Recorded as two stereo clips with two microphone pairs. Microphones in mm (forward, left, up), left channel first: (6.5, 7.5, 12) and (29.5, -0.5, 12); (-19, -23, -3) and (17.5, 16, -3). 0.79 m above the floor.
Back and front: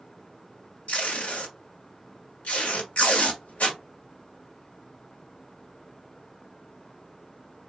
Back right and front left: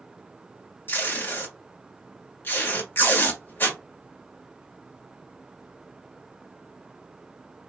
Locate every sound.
0.9 s tape being pulled: 175° left, 1.3 m